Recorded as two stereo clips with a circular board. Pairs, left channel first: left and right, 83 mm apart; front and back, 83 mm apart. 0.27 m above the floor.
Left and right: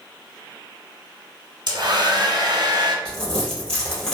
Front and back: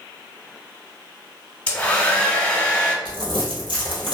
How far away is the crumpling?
About 1.7 m.